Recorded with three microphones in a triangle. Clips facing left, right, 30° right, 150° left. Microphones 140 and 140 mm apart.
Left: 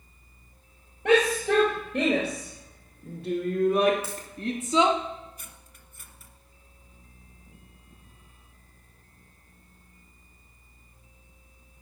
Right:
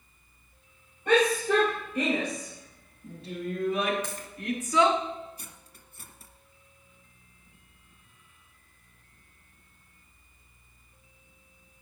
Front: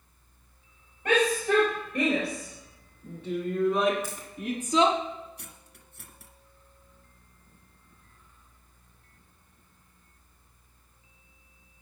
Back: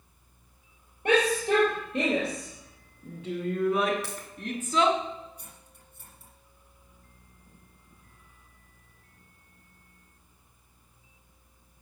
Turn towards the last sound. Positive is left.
turn(degrees=-35)